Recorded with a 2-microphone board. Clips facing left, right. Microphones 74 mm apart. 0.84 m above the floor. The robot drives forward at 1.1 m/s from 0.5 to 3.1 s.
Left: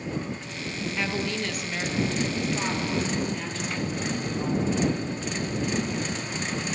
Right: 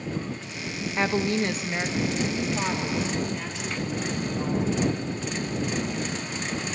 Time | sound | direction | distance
1.0 | a woman speaking | 30° right (ahead or behind) | 0.9 m